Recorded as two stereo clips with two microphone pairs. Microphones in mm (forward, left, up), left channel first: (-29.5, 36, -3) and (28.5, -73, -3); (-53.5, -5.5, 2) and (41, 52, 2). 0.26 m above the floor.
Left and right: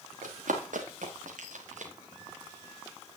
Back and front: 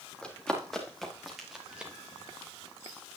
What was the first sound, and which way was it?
Running footsteps, 65° right.